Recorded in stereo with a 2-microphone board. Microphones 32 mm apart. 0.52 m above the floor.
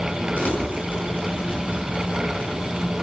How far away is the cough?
No cough in this recording.